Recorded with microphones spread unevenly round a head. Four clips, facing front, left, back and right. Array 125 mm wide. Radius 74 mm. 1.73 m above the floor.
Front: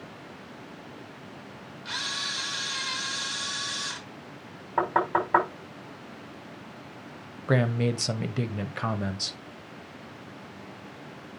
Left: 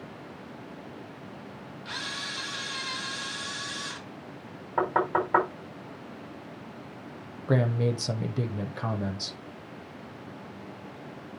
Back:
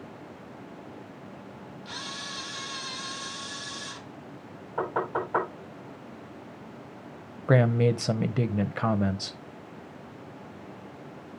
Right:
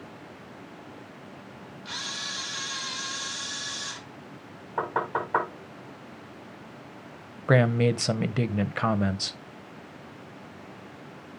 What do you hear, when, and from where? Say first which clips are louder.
1.9 s a camera shutter: left 1 dB, front 5 dB; 5° left, 2.5 m
4.8 s knocking: left 3 dB, front 4 dB; straight ahead, 4.5 m
7.5 s a man speaking: right 4 dB, back 3 dB; 80° right, 0.7 m